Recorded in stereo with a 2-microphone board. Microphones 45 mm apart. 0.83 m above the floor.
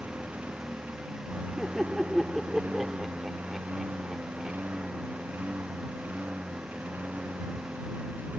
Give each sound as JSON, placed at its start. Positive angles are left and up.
{"t": 0.0, "sound": "a lawn mower", "side_deg": -35}
{"t": 1.6, "sound": "laughter", "side_deg": -5}